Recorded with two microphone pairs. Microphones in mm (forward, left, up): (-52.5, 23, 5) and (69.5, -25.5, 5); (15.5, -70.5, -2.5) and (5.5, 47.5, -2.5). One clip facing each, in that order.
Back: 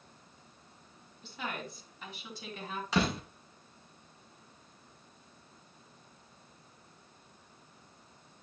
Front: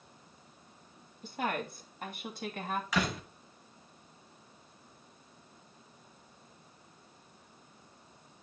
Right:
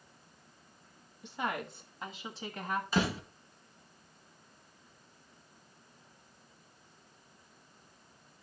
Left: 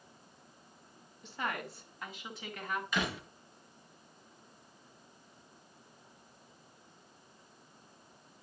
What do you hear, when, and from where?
1.2 s a woman speaking: 15° right, 2 m; by 2.8 s 35° right, 2.5 m
2.9 s a door slam: 140° right, 3 m